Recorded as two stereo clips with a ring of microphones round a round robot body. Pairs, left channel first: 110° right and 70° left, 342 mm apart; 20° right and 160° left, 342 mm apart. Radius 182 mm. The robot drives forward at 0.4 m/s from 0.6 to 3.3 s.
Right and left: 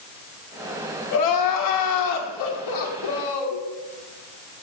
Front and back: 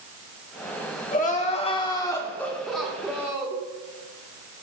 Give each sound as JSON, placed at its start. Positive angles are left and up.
{"t": 1.1, "sound": "crying", "azimuth_deg": -85, "distance_m": 1.5}